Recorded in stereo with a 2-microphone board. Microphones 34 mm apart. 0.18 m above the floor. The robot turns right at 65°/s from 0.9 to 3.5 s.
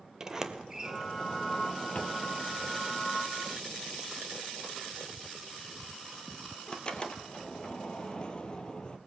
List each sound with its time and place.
0.2 s a sliding door: 20° right (ahead or behind), 1.6 m; by 9.0 s 30° left (ahead or behind), 1.6 m